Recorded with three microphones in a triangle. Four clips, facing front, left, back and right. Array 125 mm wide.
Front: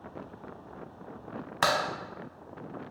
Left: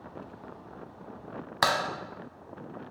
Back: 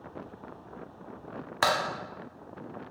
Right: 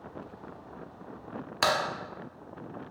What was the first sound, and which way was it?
A crack, 100° left.